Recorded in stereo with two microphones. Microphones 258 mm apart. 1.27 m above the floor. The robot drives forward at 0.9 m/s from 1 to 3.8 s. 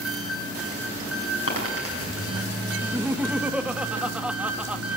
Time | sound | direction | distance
0.0 | an engine running | 75° right (ahead or behind) | 8 m
1.5 | a dropped coin | 65° left (ahead or behind) | 5.5 m
2.8 | laughter | 10° right (ahead or behind) | 1.0 m